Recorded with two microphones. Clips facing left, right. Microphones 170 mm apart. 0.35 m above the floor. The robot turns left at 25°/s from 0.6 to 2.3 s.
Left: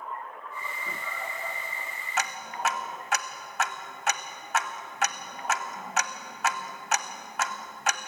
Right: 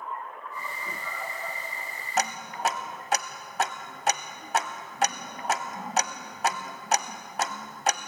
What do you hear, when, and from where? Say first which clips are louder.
2.2 s ticking: right 3 dB; 40° right (ahead or behind), 0.5 m; by 8.1 s 35° right (ahead or behind), 0.5 m